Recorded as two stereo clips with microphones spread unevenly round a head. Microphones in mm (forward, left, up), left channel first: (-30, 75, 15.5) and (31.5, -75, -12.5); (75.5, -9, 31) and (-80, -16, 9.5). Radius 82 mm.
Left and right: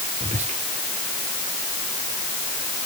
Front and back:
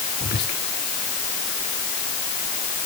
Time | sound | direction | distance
0.2 | whispering | 20° right | 4 m